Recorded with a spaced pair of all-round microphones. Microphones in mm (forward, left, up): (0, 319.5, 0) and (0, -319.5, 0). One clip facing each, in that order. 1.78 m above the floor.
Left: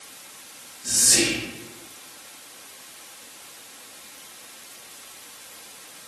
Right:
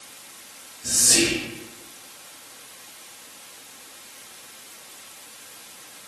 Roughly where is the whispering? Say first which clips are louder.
Right 2 dB; right.